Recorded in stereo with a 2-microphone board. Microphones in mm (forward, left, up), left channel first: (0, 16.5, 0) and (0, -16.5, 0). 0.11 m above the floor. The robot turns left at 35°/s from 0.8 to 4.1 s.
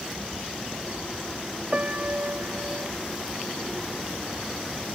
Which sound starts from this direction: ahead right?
A piano, at 1.7 s.